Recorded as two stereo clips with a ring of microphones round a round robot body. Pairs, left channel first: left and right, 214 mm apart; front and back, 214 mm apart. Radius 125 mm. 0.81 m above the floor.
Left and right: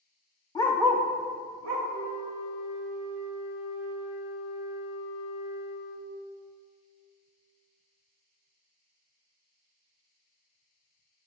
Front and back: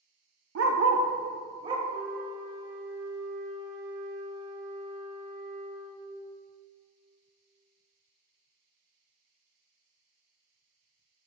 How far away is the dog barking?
About 0.6 m.